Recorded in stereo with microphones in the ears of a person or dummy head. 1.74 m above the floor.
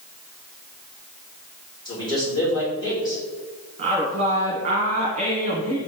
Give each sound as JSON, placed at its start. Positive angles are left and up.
{"t": 1.9, "sound": "a man speaking", "side_deg": 20, "distance_m": 3.5}
{"t": 3.8, "sound": "a woman speaking", "side_deg": -35, "distance_m": 1.5}